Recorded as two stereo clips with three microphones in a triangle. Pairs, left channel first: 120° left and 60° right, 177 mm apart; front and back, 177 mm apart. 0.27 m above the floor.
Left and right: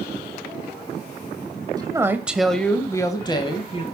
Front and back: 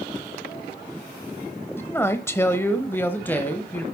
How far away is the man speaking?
About 1.0 m.